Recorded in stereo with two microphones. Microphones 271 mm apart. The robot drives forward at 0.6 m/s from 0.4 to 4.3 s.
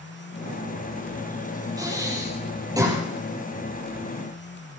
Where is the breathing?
15° right (ahead or behind), 10 m.